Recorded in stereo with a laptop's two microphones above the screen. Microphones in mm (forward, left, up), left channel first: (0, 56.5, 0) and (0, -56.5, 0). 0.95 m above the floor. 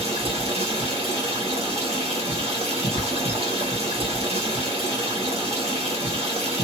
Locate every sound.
0.0 s running water: 65° right (ahead or behind), 1.5 m